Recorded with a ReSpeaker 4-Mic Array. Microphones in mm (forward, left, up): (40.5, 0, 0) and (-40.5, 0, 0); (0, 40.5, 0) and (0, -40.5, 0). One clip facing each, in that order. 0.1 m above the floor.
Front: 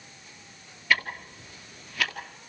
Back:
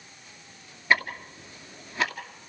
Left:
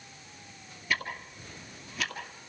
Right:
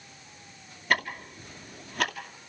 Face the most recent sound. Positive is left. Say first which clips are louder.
# back 2 dB, right 5 dB
turn(degrees=-115)